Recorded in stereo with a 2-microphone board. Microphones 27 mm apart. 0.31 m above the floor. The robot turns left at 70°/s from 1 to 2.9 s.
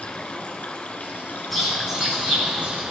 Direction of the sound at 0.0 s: 105° left.